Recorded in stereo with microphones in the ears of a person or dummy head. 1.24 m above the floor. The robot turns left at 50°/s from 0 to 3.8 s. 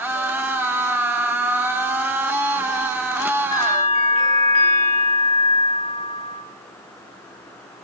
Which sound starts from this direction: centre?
A bell, at 3.5 s.